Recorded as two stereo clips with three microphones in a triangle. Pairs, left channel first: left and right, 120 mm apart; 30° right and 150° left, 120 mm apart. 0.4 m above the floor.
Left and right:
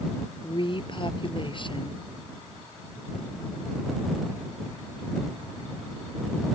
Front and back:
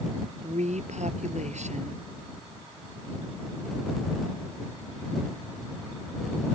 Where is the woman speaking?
135° left.